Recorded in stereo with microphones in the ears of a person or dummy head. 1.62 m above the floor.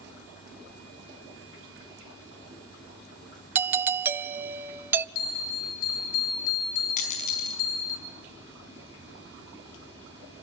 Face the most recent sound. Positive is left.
turn(degrees=50)  # may be behind; listen again after turning